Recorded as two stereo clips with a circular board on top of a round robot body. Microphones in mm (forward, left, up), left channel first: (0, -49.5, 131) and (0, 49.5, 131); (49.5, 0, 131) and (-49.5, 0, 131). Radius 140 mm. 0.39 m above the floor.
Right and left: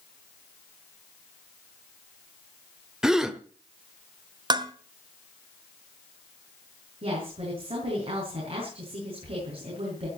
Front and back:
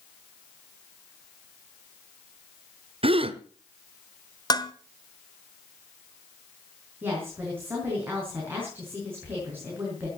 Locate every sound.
3.0 s a gasp: 175° left, 1.4 m
4.5 s dishes clattering: 50° left, 1.4 m
7.0 s a woman speaking: 110° left, 6.5 m